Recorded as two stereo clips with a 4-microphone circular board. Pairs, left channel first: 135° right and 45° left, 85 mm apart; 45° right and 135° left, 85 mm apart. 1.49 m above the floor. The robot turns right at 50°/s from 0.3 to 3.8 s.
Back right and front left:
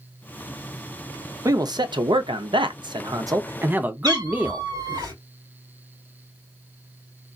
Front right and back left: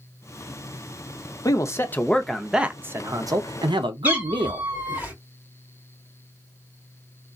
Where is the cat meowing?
70° left, 3 m.